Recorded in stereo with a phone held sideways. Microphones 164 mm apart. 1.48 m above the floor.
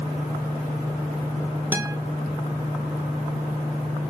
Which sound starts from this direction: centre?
A guitar, at 1.7 s.